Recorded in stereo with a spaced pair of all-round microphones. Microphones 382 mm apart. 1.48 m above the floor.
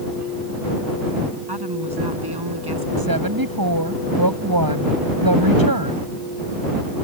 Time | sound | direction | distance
1.5 | a woman speaking | 85° right | ?
3.0 | a woman speaking | 65° right (ahead or behind) | ?